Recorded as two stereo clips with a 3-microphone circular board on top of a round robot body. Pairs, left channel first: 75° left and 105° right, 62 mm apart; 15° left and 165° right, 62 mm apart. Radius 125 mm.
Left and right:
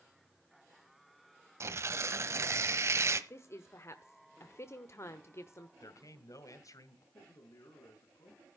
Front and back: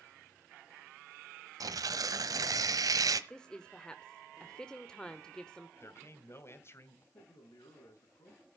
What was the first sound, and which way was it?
Tearing paper, 150° right.